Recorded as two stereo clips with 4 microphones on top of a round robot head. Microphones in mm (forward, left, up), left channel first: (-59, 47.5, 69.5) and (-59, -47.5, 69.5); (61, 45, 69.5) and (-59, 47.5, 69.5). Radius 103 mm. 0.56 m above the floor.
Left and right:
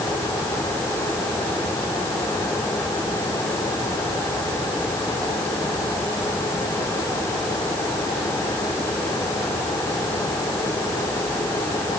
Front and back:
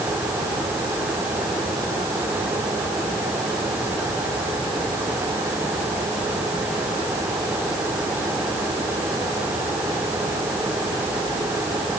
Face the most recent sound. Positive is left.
No sound to turn to.